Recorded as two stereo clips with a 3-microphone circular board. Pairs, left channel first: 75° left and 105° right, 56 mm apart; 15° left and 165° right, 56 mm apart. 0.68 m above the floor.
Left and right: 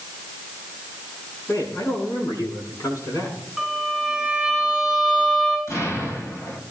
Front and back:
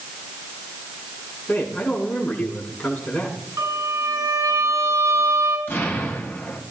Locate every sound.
1.5 s a man speaking: 75° left, 8 m
3.6 s a violin: 175° left, 7 m
5.7 s an explosion: 65° left, 4 m